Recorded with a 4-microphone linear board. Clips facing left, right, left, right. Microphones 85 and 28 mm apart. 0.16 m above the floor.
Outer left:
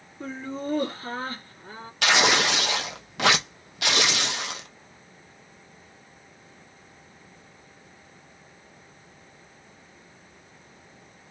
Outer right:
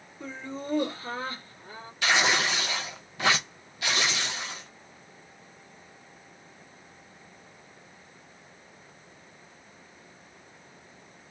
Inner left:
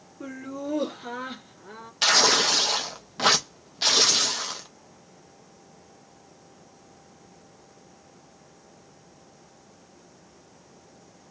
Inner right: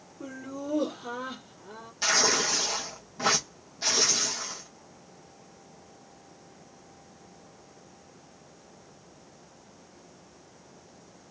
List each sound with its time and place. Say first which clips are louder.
0.2 s laughter: outer left 4 dB, inner left 3 dB; 40° left (ahead or behind), 2.5 m
2.0 s tearing paper: outer left 3 dB, inner left 5 dB; 85° left, 0.8 m